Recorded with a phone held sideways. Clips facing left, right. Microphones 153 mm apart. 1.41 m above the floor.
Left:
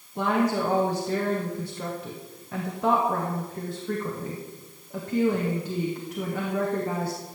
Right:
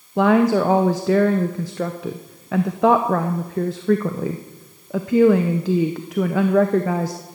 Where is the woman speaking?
80° right, 0.7 m.